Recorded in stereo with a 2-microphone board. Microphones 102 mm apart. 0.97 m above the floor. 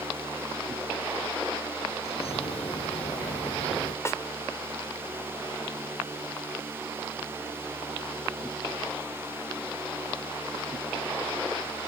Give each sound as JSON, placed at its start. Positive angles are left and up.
{"t": 2.0, "sound": "a bird", "side_deg": 75}
{"t": 4.0, "sound": "a snare drum", "side_deg": 30}